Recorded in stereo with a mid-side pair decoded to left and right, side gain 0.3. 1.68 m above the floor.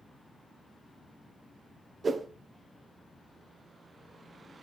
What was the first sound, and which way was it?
A whoosh, 55° right.